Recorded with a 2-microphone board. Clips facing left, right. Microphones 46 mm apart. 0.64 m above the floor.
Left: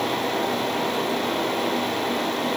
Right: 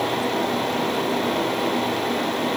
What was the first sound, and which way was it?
Only background noise.